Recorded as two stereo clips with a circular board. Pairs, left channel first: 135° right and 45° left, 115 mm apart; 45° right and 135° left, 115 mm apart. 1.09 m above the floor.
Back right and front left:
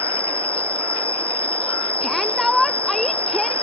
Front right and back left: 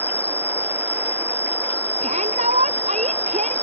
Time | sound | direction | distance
0.0 | an insect | 65° left | ?
2.0 | a shout | 135° left | ?